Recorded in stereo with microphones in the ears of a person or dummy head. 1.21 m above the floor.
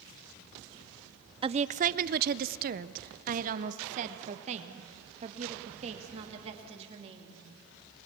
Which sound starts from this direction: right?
A woman speaking, at 1.4 s.